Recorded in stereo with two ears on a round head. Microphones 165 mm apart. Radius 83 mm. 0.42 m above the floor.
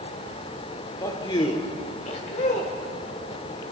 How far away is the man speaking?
About 0.8 m.